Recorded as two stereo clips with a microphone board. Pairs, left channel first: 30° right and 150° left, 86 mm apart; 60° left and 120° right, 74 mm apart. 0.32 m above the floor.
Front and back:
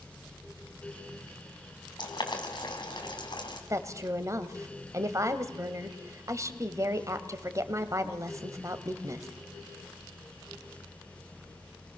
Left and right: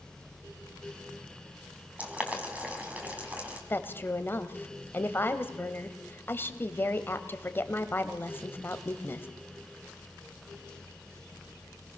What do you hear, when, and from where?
2.0 s boiling: 50° right, 3 m
3.7 s a woman speaking: 110° left, 1.4 m